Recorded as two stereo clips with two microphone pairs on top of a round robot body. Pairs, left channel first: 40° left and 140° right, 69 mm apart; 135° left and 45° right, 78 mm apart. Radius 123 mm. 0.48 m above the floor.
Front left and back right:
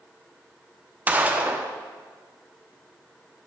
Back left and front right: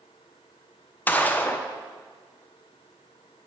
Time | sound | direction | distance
1.1 | a gunshot | 165° left | 1.0 m